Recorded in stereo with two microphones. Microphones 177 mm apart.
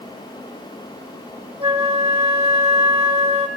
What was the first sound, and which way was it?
A flute, 35° right (ahead or behind).